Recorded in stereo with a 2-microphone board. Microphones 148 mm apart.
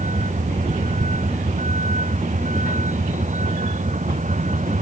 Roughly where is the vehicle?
Right.